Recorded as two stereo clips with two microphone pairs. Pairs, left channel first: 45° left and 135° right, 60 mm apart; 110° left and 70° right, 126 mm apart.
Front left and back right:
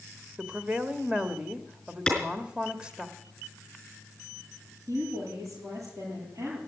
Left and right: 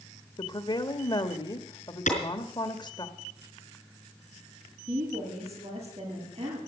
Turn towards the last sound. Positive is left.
turn(degrees=-95)